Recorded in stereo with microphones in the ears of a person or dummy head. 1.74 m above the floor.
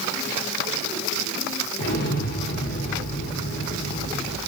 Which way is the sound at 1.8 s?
55° left (ahead or behind).